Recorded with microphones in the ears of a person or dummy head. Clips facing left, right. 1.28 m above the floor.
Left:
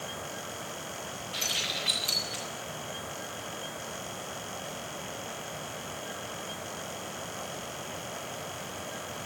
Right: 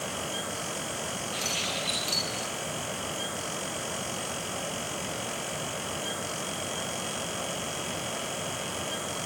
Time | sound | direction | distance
1.3 | keys jangling | 20° left (ahead or behind) | 8 m